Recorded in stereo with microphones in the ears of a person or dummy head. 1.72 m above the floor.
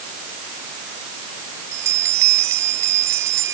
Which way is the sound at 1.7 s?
15° right (ahead or behind).